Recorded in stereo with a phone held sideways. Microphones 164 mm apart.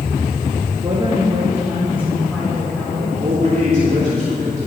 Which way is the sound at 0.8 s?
40° right (ahead or behind).